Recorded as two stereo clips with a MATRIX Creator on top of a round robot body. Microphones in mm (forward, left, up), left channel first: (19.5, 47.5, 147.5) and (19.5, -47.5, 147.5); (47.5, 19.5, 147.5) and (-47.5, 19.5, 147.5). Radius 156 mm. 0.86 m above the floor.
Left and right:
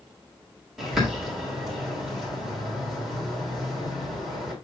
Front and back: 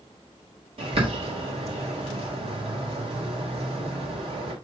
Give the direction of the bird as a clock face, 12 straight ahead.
6 o'clock.